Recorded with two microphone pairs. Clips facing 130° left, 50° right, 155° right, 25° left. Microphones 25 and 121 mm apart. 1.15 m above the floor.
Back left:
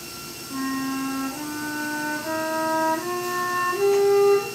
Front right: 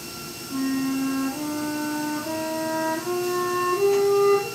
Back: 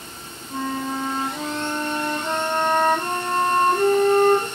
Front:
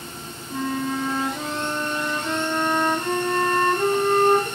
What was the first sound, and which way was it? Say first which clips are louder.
A flute: front right 2 dB, front 1 dB; 165° right.